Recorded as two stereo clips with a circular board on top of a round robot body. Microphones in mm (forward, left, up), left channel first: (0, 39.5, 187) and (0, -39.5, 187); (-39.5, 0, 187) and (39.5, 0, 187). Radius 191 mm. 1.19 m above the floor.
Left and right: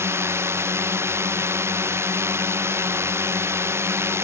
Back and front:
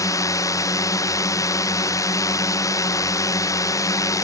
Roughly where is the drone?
Behind right.